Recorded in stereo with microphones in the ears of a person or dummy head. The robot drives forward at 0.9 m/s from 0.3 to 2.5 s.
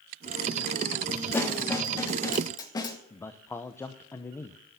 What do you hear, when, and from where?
1.3 s a snare drum: 15° left (ahead or behind), 3 m; by 3.0 s 20° left (ahead or behind), 1.9 m
3.1 s a man speaking: 15° left (ahead or behind), 0.8 m